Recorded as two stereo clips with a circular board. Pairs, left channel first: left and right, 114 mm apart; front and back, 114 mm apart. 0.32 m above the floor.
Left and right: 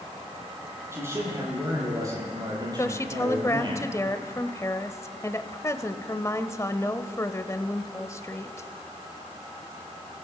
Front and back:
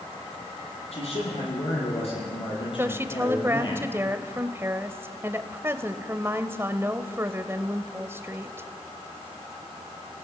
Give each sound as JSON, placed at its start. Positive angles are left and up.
{"t": 0.9, "sound": "a man speaking", "azimuth_deg": -25, "distance_m": 8.5}
{"t": 2.8, "sound": "a woman speaking", "azimuth_deg": 130, "distance_m": 1.1}